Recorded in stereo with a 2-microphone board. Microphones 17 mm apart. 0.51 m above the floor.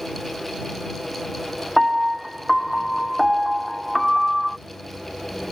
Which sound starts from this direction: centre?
A piano, at 1.8 s.